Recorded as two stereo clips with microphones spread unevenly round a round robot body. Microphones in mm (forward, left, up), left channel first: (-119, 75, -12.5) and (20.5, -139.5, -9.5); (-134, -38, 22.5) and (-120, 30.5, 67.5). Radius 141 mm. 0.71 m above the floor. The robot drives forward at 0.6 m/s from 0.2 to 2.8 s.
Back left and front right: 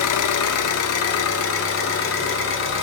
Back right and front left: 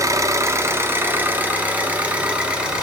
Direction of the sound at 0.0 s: 140° left.